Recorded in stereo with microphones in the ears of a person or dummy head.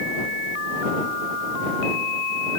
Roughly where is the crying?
I don't hear crying.